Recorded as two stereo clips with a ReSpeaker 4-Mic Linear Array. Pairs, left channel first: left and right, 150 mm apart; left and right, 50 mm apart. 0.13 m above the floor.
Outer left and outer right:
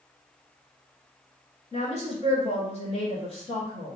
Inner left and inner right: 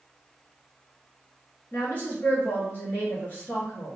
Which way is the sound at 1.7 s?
40° left (ahead or behind).